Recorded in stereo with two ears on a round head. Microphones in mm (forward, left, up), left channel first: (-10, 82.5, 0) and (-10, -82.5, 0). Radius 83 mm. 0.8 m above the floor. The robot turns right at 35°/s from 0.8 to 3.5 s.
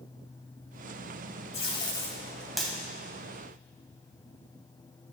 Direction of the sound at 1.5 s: 35° left (ahead or behind).